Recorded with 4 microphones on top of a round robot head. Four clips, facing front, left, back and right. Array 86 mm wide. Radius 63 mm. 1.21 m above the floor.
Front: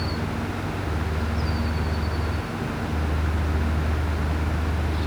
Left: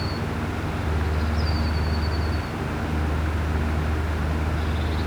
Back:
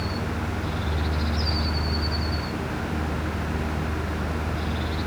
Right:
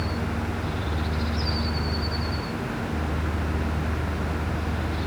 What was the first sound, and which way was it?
Only background noise.